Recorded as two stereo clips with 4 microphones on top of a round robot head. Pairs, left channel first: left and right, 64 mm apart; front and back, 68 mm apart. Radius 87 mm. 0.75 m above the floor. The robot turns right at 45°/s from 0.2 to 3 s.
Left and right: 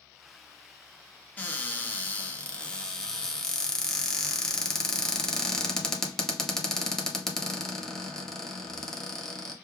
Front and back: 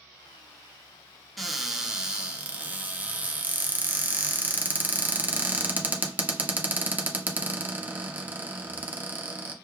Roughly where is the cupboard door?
Left.